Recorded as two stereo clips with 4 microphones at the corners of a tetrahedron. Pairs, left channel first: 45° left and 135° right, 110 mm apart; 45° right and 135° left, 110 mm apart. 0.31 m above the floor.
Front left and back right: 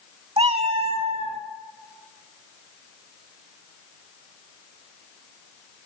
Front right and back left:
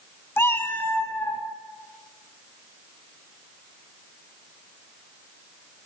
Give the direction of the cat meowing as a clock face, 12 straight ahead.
4 o'clock.